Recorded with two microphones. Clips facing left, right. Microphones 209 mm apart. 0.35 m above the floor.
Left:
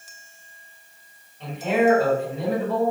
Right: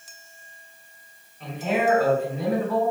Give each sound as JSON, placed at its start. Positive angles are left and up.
{"t": 1.4, "sound": "a man speaking", "side_deg": 30, "distance_m": 1.8}